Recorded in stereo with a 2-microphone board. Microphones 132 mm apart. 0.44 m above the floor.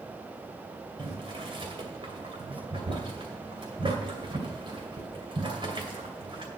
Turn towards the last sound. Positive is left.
turn(degrees=-40)  # may be behind; listen again after turning